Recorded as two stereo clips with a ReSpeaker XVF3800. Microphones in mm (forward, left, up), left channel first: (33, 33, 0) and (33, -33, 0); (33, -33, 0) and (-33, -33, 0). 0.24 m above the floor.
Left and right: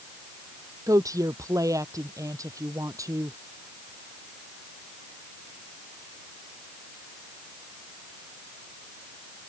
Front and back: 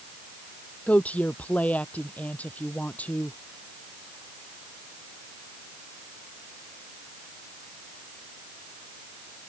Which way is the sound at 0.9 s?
65° right.